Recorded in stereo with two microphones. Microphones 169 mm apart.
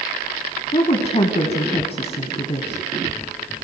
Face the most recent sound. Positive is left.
turn(degrees=40)  # may be behind; listen again after turning